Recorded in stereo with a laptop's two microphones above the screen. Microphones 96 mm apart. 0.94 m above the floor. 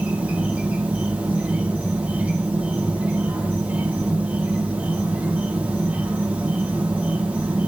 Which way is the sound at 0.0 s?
15° right (ahead or behind).